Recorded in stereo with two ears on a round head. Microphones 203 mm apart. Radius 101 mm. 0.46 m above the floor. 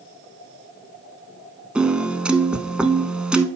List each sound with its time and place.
1.8 s a piano: 5° right (ahead or behind), 0.6 m